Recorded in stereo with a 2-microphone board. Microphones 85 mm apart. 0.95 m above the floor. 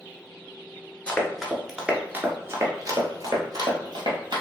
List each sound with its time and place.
1.1 s running footsteps: 15° left (ahead or behind), 0.9 m; by 4.4 s 60° right (ahead or behind), 1.7 m